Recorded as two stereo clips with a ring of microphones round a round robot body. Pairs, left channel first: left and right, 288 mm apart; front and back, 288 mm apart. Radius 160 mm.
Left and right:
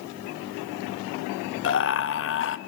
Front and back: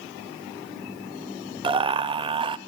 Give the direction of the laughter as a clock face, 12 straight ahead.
8 o'clock.